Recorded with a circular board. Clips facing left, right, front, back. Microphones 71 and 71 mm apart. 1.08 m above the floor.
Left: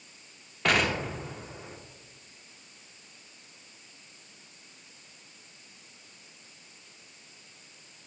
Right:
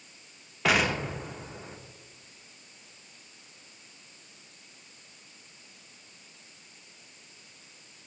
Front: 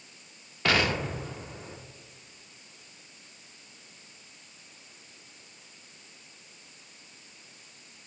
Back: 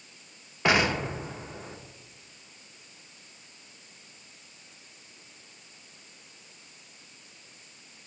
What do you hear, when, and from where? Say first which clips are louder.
0.7 s an explosion: right 1 dB, back 2 dB; 170° right, 0.6 m